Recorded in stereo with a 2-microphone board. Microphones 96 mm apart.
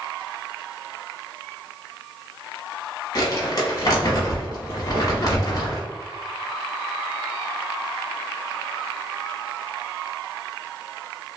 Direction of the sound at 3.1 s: 40° left (ahead or behind).